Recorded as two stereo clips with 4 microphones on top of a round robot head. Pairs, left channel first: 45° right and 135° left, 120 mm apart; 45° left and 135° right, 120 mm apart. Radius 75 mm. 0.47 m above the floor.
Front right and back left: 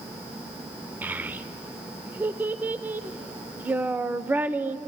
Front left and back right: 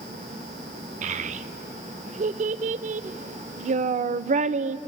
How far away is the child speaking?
About 0.6 m.